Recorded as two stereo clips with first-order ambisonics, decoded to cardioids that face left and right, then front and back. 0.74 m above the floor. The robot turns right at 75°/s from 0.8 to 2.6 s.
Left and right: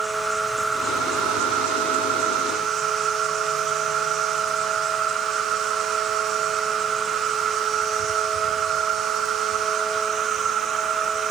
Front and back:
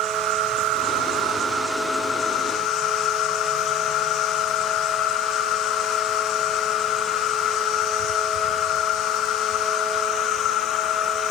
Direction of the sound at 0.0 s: 170° right.